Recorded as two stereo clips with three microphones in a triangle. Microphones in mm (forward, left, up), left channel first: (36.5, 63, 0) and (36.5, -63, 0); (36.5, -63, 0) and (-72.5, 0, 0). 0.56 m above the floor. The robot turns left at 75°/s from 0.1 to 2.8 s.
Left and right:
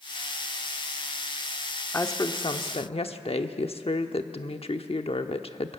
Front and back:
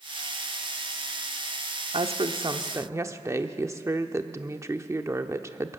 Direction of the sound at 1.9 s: 155° left.